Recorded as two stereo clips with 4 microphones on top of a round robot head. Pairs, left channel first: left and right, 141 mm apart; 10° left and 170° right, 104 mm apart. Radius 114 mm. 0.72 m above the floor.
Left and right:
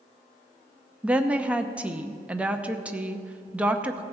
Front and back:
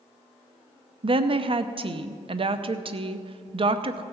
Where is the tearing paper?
I don't hear tearing paper.